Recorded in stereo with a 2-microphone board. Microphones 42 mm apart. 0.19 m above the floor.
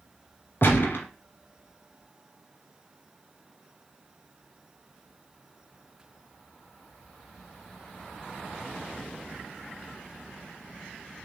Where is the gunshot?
60° left (ahead or behind), 1.2 m.